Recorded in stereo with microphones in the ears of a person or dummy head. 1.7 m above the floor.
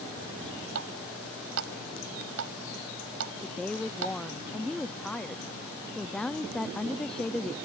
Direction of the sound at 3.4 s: 5° left (ahead or behind).